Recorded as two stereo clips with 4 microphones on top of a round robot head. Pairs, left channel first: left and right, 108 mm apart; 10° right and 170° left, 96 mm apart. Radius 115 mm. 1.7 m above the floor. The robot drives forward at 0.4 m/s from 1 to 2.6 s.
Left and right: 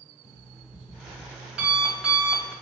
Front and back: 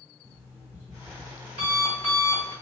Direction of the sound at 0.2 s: 165° right.